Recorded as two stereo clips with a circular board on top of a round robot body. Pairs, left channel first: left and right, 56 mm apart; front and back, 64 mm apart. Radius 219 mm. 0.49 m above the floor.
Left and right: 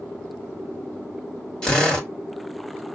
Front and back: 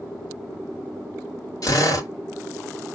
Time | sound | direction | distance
1.6 | a drill | 15° left | 2.5 m